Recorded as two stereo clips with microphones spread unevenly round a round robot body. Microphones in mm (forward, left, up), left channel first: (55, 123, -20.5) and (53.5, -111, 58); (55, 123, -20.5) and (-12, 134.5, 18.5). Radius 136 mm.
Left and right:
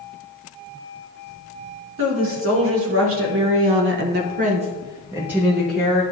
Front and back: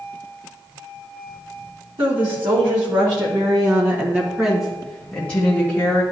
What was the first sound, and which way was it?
A woman speaking, 140° right.